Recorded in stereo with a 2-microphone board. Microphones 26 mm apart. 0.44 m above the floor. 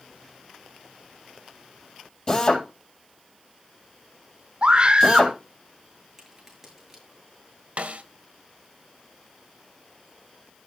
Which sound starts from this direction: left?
A drill, at 2.3 s.